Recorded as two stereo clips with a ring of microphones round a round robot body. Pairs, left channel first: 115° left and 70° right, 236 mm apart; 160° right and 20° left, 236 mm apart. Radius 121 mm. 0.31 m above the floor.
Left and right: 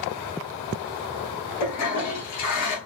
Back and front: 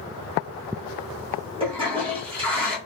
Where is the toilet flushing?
90° left, 1.2 m.